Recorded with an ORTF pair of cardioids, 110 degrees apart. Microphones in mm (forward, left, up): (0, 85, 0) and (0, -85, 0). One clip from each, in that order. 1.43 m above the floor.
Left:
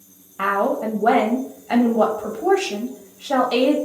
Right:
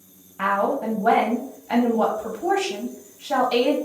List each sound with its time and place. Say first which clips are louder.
0.4 s a woman speaking: left 2 dB; 20° left, 0.7 m